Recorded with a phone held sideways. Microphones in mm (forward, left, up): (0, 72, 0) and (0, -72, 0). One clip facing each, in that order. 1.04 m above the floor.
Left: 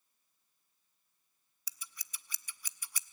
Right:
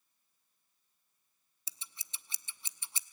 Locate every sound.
1.7 s scissors: 25° right (ahead or behind), 0.6 m